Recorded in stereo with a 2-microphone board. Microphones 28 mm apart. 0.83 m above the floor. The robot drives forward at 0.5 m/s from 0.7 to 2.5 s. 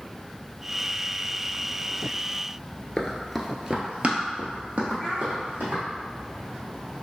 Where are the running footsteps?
25° left (ahead or behind), 0.9 m; by 5.8 s 65° right (ahead or behind), 3 m.